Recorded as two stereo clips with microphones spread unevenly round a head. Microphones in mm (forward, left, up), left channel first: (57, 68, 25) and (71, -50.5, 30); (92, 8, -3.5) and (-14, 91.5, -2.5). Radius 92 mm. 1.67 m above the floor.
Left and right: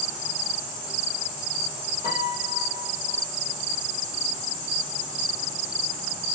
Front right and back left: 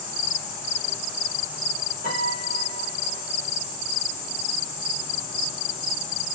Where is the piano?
160° left, 5.5 m.